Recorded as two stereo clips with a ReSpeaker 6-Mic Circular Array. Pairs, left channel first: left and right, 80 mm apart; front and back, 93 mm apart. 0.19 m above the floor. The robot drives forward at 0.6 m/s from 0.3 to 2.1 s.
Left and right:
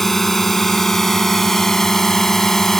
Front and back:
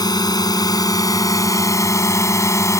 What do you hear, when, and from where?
0.0 s a drone: 5° left; by 2.8 s 10° left